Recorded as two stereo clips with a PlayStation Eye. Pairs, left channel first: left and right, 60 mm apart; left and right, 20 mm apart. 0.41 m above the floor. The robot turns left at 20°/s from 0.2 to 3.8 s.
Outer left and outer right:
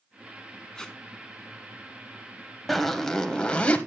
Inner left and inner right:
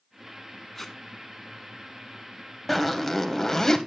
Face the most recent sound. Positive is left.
turn(degrees=25)  # may be behind; listen again after turning